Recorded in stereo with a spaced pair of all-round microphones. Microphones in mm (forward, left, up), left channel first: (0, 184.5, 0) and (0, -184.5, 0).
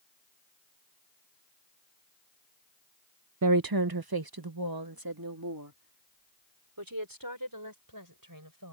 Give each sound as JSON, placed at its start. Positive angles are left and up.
{"t": 3.4, "sound": "a woman speaking", "side_deg": -50}